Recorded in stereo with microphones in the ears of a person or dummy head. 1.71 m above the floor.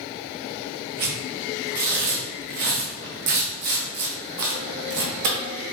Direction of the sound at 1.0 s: 50° right (ahead or behind).